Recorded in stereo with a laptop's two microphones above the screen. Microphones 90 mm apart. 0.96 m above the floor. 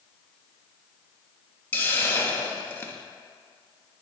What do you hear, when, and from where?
1.7 s a hiss: 20° left (ahead or behind), 1.0 m